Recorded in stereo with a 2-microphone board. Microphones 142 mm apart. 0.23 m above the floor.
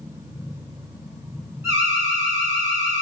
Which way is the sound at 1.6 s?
20° right (ahead or behind).